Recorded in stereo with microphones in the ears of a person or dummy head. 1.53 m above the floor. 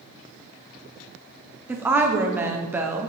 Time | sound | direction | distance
1.7 | a woman speaking | 5° right (ahead or behind) | 0.7 m